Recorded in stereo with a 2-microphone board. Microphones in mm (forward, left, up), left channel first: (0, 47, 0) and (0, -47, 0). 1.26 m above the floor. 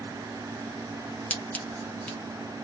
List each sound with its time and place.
1.3 s scissors: 15° left (ahead or behind), 0.9 m